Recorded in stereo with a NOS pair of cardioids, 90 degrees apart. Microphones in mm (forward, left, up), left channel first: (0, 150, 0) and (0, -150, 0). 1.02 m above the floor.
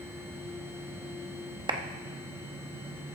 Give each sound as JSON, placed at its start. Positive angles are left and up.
{"t": 0.0, "sound": "a machine running", "azimuth_deg": -10, "distance_m": 1.9}
{"t": 1.7, "sound": "a clap", "azimuth_deg": -15, "distance_m": 1.0}